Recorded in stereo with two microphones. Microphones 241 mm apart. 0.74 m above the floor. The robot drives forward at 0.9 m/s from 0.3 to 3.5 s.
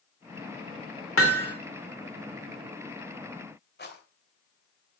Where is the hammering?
65° left (ahead or behind), 2 m; by 1.6 s 70° left (ahead or behind), 2.0 m.